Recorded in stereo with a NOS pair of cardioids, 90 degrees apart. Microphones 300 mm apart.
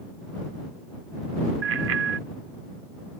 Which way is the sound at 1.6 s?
50° right.